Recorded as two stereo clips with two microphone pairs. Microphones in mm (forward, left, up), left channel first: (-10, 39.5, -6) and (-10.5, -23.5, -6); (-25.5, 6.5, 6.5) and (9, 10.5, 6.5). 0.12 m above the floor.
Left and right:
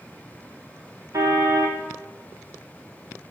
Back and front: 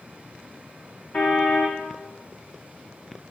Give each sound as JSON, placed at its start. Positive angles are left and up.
{"t": 1.1, "sound": "a car horn", "azimuth_deg": -125, "distance_m": 4.5}